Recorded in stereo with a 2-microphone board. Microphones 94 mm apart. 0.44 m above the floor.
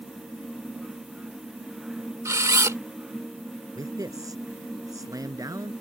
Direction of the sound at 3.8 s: 40° right (ahead or behind).